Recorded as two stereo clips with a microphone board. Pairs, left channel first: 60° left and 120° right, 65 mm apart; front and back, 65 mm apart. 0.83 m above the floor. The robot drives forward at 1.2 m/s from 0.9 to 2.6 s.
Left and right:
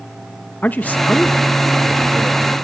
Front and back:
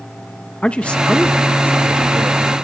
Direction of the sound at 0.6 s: 45° left.